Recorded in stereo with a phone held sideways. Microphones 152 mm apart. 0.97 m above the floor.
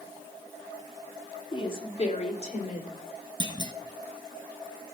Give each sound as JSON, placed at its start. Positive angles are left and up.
{"t": 1.5, "sound": "a woman speaking", "side_deg": 30, "distance_m": 2.5}
{"t": 3.4, "sound": "a clunk", "side_deg": -30, "distance_m": 1.2}